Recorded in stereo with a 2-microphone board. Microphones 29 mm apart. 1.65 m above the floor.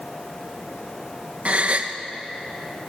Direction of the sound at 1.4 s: 45° right (ahead or behind).